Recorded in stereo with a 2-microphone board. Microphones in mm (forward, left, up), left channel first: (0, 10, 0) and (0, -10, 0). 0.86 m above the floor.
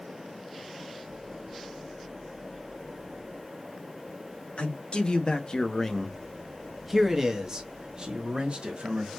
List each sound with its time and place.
4.6 s a man speaking: 55° left (ahead or behind), 1.3 m; by 9.1 s 45° right (ahead or behind), 1.8 m